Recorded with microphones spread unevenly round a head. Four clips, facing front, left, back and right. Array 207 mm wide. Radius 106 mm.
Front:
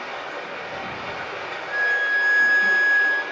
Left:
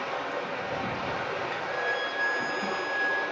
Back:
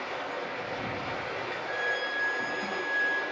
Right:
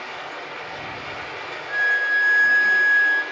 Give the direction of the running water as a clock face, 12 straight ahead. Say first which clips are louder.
Left 2 dB, front 3 dB; 9 o'clock.